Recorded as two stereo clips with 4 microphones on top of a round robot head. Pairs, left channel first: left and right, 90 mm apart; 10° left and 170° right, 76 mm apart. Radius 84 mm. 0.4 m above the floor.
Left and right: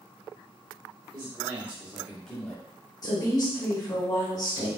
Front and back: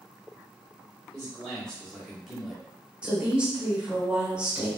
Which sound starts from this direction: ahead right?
A man speaking, at 1.1 s.